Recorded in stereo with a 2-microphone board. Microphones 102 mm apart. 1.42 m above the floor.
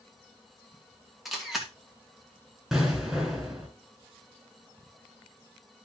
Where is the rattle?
I don't hear a rattle.